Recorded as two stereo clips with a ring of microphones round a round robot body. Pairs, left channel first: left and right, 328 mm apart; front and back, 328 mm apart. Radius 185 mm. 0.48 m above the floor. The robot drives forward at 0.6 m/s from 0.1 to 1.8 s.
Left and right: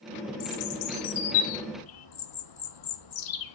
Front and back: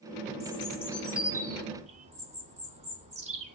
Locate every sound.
0.4 s a bird: 75° left, 1.5 m; by 3.5 s 105° left, 1.5 m